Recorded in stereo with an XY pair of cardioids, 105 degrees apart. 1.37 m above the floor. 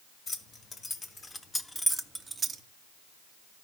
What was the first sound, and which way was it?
Keys jangling, 50° left.